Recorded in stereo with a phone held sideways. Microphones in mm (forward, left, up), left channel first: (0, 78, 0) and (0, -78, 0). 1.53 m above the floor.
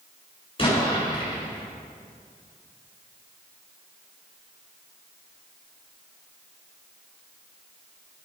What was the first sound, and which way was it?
An explosion, 35° left (ahead or behind).